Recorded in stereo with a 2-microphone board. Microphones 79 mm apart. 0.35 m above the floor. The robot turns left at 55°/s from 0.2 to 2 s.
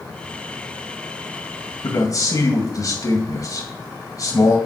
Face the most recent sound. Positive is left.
turn(degrees=50)  # may be behind; listen again after turning